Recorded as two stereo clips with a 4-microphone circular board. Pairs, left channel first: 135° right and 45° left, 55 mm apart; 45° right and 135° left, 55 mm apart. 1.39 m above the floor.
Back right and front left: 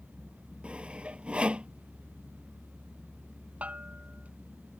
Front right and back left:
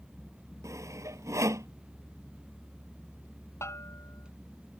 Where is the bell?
20° right.